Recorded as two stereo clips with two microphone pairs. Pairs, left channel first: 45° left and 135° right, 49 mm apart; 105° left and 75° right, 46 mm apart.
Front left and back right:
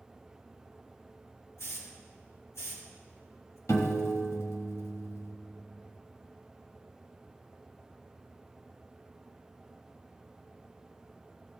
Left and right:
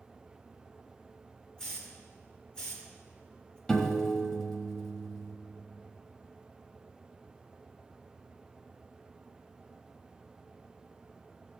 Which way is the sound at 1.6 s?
40° left.